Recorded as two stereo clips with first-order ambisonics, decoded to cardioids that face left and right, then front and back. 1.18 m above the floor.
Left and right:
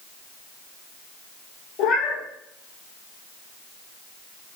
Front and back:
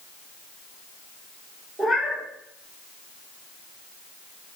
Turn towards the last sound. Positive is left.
turn(degrees=95)